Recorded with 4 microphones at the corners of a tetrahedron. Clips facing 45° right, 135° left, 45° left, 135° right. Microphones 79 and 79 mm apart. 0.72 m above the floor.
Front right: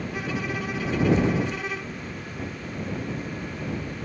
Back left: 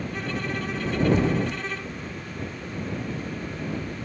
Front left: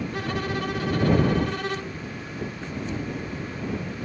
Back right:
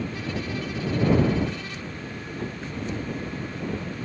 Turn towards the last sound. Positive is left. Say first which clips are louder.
# front right 1 dB, front left 3 dB
turn(degrees=35)